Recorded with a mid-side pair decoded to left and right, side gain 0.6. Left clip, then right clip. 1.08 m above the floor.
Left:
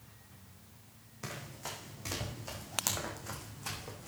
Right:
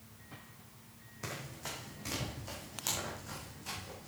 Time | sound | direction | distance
1.2 | running footsteps | 5° left | 4 m